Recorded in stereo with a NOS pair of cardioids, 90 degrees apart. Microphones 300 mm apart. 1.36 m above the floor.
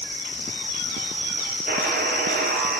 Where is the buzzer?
30° right, 6 m.